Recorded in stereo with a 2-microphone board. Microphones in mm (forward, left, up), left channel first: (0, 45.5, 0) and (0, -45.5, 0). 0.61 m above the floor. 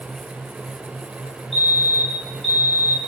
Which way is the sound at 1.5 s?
70° right (ahead or behind).